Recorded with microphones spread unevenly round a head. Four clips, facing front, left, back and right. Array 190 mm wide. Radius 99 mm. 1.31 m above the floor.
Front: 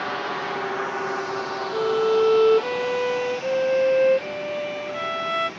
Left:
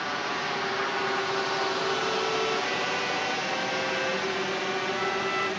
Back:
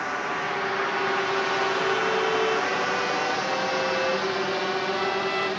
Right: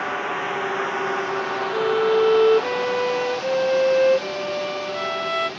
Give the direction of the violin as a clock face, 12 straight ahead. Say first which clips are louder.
Right 9 dB, front 4 dB; 2 o'clock.